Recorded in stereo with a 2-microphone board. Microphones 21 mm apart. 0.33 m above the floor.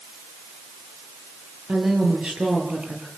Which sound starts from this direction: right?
A woman speaking, at 1.7 s.